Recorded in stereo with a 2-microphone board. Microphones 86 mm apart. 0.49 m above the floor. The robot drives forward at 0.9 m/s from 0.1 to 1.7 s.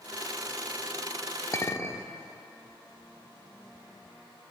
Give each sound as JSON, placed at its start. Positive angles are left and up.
{"t": 1.5, "sound": "a clink", "side_deg": 35, "distance_m": 0.5}